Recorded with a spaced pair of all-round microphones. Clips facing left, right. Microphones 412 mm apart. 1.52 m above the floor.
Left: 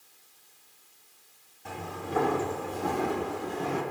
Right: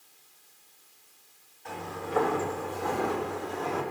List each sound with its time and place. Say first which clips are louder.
1.6 s footsteps: even; 50° left (ahead or behind), 4 m; by 3.8 s 40° left (ahead or behind), 3.5 m